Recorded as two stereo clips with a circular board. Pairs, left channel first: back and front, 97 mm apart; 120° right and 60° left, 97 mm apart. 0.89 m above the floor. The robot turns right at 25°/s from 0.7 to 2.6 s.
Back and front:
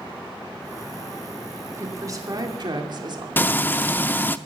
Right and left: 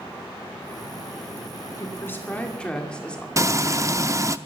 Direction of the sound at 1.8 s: 60° right.